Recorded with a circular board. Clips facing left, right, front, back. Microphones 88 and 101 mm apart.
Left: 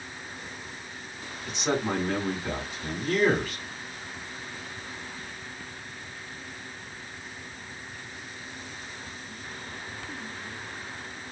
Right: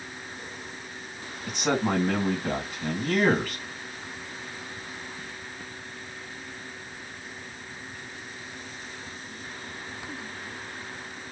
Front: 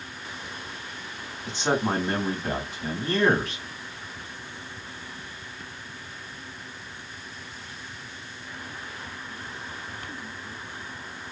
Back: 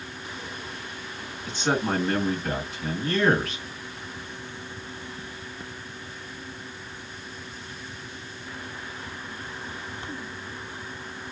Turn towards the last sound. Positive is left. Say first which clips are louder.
# right 2 dB, even
turn(degrees=-65)